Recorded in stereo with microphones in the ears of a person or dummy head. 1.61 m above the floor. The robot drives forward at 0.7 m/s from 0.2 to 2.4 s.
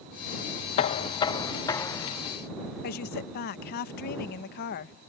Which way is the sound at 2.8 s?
50° left (ahead or behind).